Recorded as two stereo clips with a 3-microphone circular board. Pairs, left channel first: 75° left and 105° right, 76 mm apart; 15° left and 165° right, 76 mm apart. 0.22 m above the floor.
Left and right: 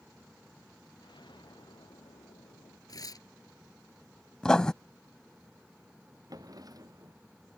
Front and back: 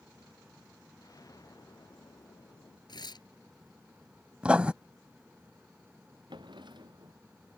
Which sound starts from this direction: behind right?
A drawer, at 6.3 s.